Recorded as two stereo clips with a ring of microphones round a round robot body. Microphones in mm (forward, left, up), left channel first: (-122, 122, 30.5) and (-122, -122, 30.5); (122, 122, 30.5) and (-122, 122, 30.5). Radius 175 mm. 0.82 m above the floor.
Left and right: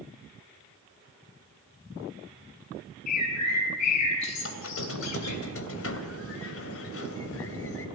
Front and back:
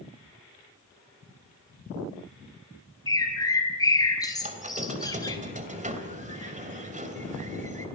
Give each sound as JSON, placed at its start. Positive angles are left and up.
{"t": 3.1, "sound": "a bird", "azimuth_deg": 75, "distance_m": 4.5}
{"t": 4.4, "sound": "a squeak", "azimuth_deg": 120, "distance_m": 3.0}